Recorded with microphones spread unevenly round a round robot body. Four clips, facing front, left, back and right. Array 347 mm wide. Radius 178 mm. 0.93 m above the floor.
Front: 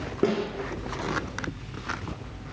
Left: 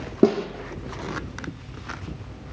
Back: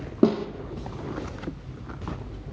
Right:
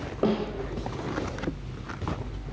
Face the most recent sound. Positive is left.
turn(degrees=140)